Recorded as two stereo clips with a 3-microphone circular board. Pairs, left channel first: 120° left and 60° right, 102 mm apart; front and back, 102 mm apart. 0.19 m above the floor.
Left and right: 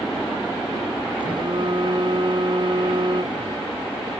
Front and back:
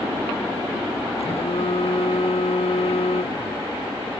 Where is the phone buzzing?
20° right.